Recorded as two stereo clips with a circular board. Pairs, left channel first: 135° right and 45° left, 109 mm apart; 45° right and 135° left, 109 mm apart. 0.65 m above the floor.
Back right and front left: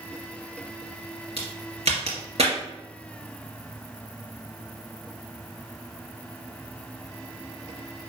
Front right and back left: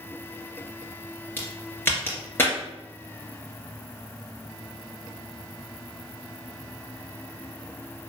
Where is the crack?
25° left, 2.5 m.